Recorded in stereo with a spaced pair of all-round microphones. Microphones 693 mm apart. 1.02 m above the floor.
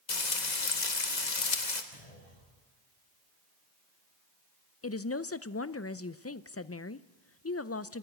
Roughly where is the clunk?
Left.